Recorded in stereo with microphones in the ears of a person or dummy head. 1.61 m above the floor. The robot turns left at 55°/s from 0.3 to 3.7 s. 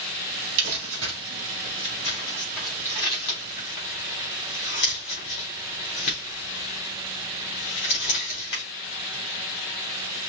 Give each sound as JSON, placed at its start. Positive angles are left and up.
{"t": 0.6, "sound": "crumpling", "side_deg": -65, "distance_m": 3.0}